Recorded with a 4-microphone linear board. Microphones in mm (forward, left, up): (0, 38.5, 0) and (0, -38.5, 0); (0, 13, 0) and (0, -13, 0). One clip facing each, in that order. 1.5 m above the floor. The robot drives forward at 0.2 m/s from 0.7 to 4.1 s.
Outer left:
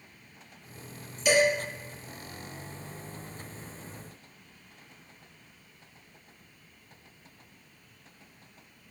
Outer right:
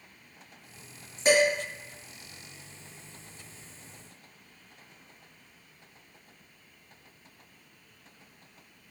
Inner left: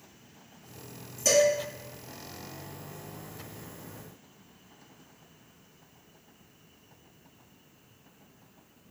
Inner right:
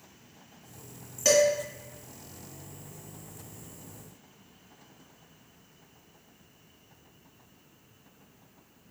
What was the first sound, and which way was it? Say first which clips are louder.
Dishes clattering: outer right 1 dB, inner right 1 dB; 45° right (ahead or behind).